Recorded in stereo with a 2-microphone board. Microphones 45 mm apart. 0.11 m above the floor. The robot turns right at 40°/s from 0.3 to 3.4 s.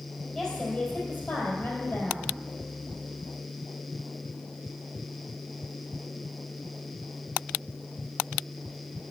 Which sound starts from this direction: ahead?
A woman speaking, at 0.3 s.